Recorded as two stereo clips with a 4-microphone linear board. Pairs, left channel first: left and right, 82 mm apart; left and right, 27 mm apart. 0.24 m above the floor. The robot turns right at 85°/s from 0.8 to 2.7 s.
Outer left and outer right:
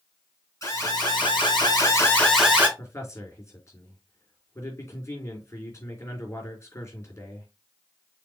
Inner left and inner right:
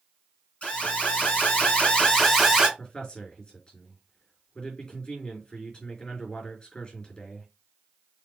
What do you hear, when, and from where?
0.6 s an alarm: 45° left, 4.5 m; by 2.7 s 155° right, 4.5 m
2.8 s a man speaking: 30° left (ahead or behind), 3.5 m